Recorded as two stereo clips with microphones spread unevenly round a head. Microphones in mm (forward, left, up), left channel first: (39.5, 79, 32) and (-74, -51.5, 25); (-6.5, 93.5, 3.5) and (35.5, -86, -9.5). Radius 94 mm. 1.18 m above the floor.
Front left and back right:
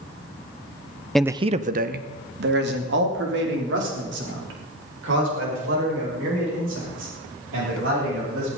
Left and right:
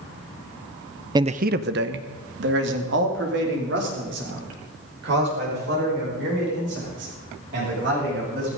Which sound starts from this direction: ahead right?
A man speaking, at 1.1 s.